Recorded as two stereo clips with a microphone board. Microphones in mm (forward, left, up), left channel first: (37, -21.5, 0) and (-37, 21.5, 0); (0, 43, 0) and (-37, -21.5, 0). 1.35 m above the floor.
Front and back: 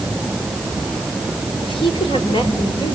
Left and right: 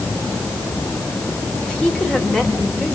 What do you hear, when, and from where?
1.6 s a woman speaking: 15° right, 4 m